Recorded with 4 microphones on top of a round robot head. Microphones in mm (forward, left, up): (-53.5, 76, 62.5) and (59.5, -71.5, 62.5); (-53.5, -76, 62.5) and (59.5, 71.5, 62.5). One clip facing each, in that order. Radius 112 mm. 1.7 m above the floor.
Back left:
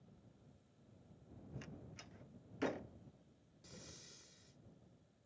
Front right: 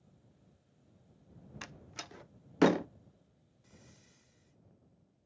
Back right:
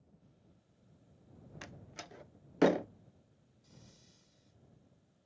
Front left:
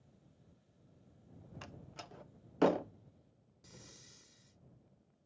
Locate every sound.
1.6 s a door slam: 50° right
3.6 s breathing: 85° left